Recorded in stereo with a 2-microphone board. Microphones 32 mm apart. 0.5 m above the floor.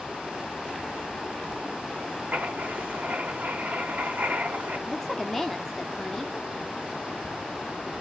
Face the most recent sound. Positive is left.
turn(degrees=15)  # may be behind; listen again after turning